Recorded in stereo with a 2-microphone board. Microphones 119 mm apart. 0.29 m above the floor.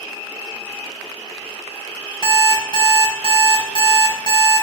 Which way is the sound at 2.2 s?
45° left (ahead or behind).